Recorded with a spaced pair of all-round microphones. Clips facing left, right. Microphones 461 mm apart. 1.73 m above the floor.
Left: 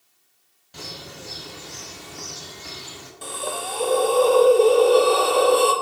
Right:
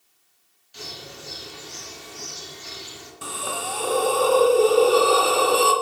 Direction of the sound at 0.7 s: 70° left (ahead or behind).